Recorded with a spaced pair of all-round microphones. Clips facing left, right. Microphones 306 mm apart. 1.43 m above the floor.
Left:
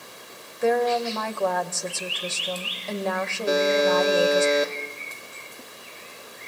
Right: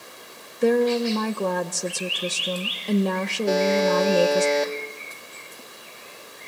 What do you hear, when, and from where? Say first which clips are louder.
0.6 s a woman speaking: right 3 dB; 40° right (ahead or behind), 1.1 m
3.5 s a buzzer: even; 5° left (ahead or behind), 2 m